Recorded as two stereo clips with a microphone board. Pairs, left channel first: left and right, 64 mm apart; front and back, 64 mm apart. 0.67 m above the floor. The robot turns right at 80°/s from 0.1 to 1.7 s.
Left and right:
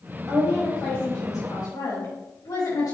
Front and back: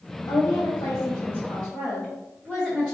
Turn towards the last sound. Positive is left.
turn(degrees=80)